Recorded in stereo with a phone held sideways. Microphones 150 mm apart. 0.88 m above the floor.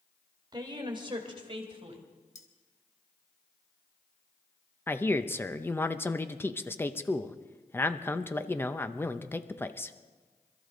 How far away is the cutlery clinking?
About 1.7 m.